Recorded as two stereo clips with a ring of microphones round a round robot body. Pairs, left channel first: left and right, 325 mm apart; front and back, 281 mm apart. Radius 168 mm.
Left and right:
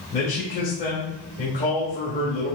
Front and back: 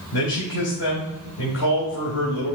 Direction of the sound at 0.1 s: 25° left.